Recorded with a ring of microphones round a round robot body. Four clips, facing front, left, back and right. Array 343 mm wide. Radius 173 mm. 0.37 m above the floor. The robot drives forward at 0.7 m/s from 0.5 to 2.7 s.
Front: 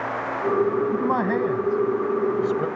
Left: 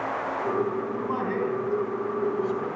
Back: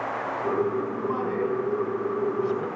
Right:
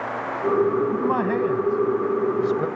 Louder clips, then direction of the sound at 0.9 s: Right 6 dB, front 5 dB; 35° right.